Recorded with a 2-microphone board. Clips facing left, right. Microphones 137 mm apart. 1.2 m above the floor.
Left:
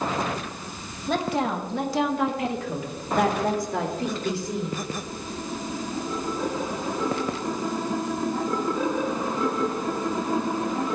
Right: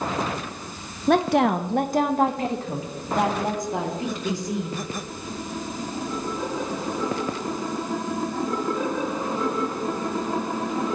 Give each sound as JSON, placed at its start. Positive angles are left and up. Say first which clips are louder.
{"t": 1.1, "sound": "a woman speaking", "louder": "right 6 dB", "side_deg": -65, "distance_m": 0.8}